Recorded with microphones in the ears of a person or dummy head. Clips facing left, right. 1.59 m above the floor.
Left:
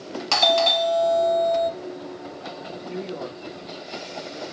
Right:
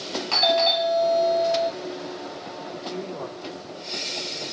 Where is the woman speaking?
20° left (ahead or behind), 3.5 m.